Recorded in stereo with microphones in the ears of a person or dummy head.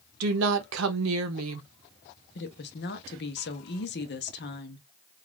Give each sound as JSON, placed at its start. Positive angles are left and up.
{"t": 0.2, "sound": "a woman speaking", "side_deg": -85, "distance_m": 0.7}
{"t": 2.4, "sound": "a woman speaking", "side_deg": 55, "distance_m": 0.8}